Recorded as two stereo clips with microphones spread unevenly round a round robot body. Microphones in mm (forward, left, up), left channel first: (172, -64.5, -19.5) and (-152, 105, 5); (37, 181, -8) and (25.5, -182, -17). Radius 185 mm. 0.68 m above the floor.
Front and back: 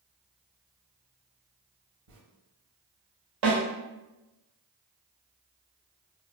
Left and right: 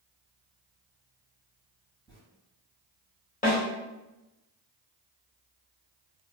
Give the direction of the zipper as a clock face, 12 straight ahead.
6 o'clock.